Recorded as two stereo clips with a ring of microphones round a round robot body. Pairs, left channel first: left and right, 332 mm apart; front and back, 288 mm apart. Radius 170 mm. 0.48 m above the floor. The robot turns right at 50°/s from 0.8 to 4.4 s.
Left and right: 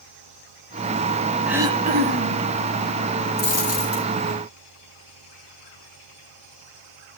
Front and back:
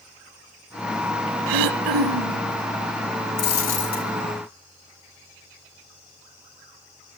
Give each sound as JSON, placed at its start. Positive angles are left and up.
{"t": 1.5, "sound": "throat clearing", "azimuth_deg": 180, "distance_m": 0.5}
{"t": 3.4, "sound": "a dropped coin", "azimuth_deg": 30, "distance_m": 3.0}